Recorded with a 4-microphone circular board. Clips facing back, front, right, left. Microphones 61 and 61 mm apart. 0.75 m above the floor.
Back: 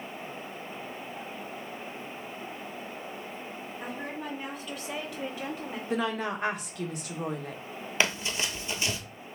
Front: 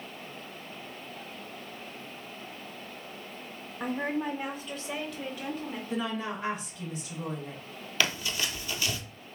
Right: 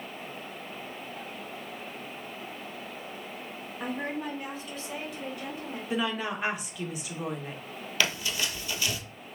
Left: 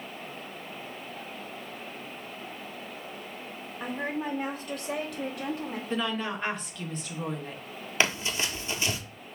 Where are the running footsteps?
135° left, 0.9 m.